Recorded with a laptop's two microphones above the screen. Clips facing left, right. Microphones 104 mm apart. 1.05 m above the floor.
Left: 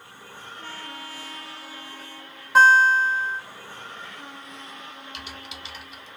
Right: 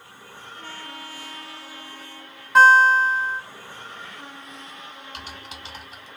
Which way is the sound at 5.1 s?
40° right (ahead or behind).